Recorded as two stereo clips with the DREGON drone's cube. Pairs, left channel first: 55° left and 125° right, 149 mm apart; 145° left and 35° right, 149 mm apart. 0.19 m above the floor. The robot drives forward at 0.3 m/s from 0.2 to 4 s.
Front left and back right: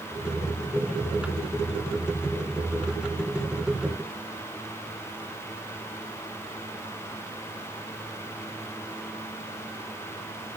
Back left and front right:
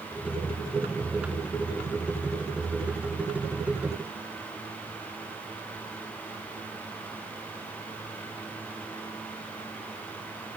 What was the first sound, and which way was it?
Only background noise.